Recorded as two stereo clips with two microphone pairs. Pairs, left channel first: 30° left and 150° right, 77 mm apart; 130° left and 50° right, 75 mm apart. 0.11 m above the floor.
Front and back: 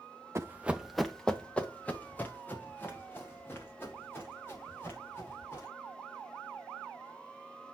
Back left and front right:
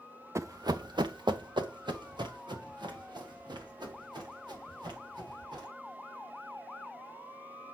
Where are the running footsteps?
100° right, 0.6 m; by 5.7 s 25° right, 5 m.